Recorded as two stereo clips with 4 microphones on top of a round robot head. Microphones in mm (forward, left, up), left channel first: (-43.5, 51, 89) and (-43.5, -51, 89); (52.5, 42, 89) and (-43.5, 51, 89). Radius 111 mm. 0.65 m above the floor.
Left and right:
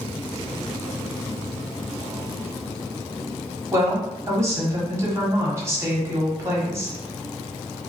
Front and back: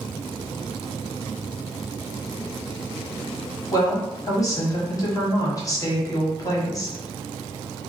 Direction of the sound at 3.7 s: 40° right.